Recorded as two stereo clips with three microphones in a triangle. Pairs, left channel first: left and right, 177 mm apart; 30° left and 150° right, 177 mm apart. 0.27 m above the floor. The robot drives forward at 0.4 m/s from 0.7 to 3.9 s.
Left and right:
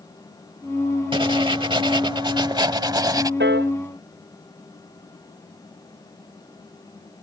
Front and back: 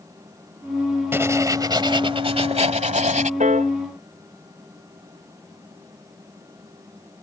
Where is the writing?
90° right; by 3.3 s 150° right.